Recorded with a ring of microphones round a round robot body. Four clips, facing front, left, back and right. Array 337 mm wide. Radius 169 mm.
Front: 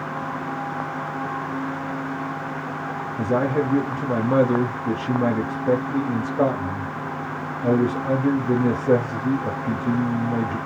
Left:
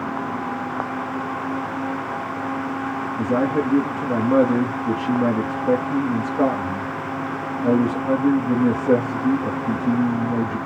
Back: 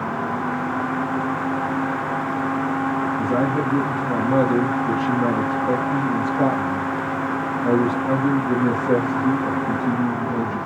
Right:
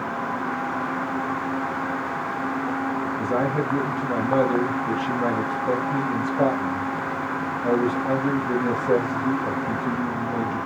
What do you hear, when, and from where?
3.2 s a man speaking: 35° left, 1.3 m